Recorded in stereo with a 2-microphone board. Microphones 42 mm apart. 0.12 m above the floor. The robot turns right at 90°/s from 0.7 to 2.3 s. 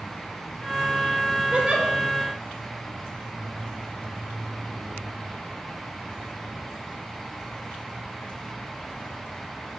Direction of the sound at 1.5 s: 30° right (ahead or behind).